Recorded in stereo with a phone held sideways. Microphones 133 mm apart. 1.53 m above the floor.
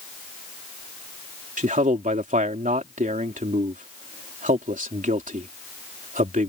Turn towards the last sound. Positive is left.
turn(degrees=-85)